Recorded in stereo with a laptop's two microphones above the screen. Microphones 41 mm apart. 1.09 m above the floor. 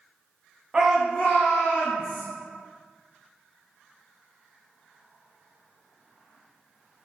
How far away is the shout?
About 0.5 m.